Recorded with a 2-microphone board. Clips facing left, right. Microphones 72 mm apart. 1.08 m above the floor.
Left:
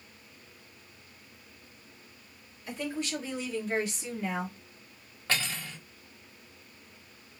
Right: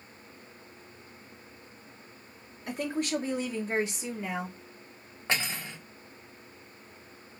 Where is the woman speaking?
60° right (ahead or behind), 1.4 m; by 4.5 s 5° left (ahead or behind), 0.9 m.